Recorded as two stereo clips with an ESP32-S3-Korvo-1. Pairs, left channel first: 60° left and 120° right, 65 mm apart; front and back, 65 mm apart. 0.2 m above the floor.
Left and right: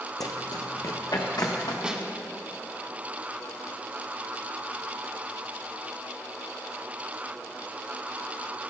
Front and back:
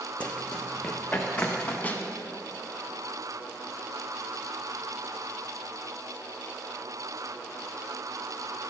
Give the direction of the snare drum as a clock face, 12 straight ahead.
2 o'clock.